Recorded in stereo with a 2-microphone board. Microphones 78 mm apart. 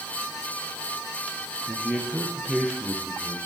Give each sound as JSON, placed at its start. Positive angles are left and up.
{"t": 1.7, "sound": "a man speaking", "side_deg": -10, "distance_m": 2.5}